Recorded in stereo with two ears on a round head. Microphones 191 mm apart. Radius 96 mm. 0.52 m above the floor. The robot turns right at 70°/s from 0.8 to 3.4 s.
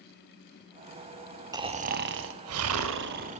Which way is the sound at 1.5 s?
160° right.